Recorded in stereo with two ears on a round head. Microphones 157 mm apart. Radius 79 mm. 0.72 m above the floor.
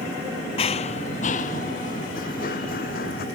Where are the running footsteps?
35° left (ahead or behind); by 3.2 s 55° left (ahead or behind).